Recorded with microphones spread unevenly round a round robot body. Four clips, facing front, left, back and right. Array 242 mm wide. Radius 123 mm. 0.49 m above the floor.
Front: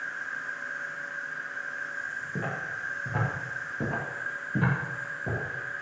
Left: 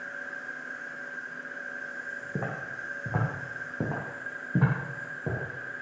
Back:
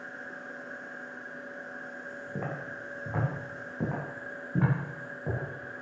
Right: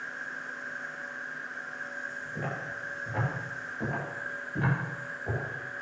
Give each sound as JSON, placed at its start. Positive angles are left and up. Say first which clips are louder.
{"t": 0.0, "sound": "an insect", "louder": "even, front 6 dB", "azimuth_deg": 15, "distance_m": 4.5}
{"t": 2.4, "sound": "footsteps", "louder": "left 1 dB, front 2 dB", "azimuth_deg": 85, "distance_m": 4.5}